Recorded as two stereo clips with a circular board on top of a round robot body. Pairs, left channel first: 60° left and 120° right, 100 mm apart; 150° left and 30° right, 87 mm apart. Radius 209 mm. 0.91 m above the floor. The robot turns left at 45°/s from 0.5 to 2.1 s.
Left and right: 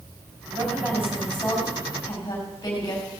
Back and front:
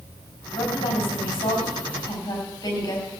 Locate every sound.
0.6 s a woman speaking: straight behind, 5 m; by 3.1 s 110° left, 5 m